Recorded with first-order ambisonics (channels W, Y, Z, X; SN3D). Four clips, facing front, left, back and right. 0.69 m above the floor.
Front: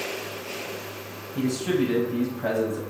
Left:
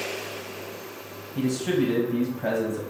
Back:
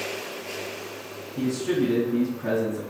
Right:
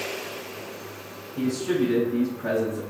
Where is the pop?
No pop in this recording.